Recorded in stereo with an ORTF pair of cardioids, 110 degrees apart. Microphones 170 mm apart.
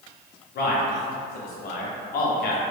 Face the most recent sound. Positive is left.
turn(degrees=65)